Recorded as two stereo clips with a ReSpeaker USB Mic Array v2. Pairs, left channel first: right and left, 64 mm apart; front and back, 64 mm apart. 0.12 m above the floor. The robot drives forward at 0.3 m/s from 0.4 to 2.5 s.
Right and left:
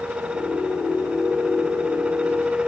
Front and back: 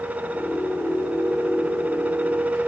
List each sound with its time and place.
Only background noise.